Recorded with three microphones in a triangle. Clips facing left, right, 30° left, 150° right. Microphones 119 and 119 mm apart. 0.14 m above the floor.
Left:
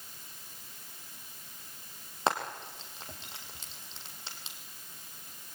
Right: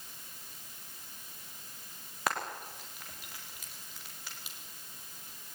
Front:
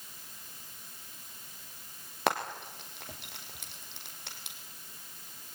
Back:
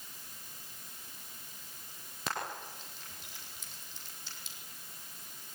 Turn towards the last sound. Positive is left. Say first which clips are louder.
# left 4 dB, front 7 dB
turn(degrees=30)